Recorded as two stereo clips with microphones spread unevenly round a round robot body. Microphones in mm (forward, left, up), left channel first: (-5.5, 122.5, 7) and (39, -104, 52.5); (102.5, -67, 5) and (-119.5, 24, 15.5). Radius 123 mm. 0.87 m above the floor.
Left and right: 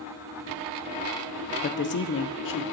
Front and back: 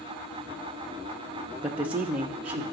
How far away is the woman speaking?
About 0.6 m.